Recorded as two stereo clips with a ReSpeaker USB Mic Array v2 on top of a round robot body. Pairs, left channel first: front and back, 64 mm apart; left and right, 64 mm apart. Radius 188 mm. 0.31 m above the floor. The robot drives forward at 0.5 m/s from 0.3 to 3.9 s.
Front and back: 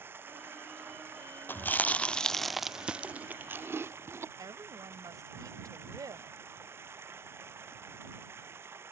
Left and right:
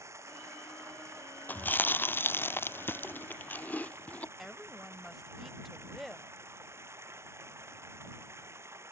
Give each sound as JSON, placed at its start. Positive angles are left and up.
{"t": 0.0, "sound": "running water", "azimuth_deg": -130}
{"t": 1.5, "sound": "chewing", "azimuth_deg": 40}
{"t": 4.4, "sound": "a woman speaking", "azimuth_deg": 180}